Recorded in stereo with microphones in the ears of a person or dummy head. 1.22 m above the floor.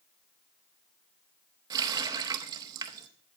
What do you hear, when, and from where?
1.7 s a running tap: 25° right (ahead or behind), 0.7 m